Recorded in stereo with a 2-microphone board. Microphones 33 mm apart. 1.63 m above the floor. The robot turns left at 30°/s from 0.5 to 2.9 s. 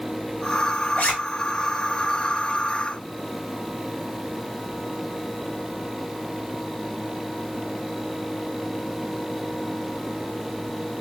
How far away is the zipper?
About 2.5 m.